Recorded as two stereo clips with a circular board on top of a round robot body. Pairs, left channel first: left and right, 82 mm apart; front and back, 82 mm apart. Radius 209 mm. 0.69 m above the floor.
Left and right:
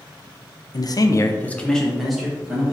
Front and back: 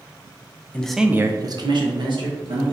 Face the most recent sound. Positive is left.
turn(degrees=-170)